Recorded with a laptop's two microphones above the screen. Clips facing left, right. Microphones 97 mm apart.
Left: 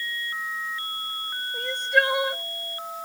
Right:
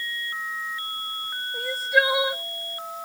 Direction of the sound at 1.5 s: 5° right (ahead or behind).